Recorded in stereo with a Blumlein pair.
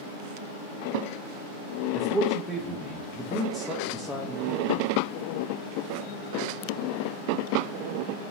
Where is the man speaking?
Straight ahead, 0.7 m.